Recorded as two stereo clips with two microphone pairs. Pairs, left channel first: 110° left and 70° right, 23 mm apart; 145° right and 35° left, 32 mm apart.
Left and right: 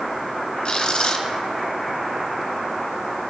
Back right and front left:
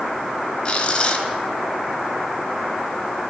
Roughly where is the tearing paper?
Behind.